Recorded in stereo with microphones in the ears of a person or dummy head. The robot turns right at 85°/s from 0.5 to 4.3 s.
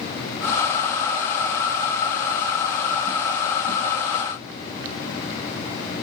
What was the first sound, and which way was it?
Only background noise.